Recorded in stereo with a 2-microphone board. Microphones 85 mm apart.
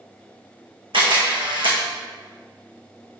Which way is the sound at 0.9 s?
75° right (ahead or behind).